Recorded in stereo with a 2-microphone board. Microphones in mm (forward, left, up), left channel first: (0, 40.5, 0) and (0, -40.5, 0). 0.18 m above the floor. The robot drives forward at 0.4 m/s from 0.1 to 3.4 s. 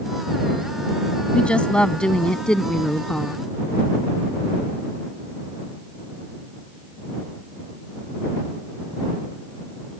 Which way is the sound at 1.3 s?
15° left (ahead or behind).